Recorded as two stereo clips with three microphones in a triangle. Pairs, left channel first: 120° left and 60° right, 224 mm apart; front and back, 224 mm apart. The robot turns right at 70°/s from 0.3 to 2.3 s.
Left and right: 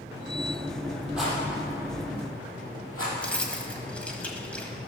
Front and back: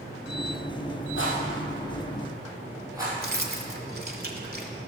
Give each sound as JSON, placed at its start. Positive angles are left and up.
{"t": 1.2, "sound": "a rattle", "azimuth_deg": 25, "distance_m": 4.0}
{"t": 3.2, "sound": "keys jangling", "azimuth_deg": -155, "distance_m": 1.2}